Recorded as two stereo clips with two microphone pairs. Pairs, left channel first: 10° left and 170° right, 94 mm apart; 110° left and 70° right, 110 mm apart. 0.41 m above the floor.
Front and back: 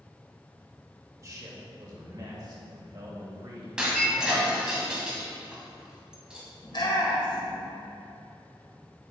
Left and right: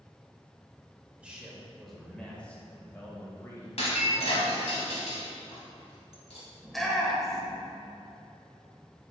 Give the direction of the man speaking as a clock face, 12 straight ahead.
5 o'clock.